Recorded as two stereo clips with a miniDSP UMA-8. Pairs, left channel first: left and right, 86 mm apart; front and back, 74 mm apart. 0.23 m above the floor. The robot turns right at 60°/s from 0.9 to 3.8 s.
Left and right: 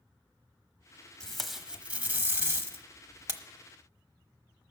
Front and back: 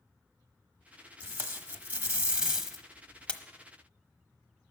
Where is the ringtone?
I don't hear a ringtone.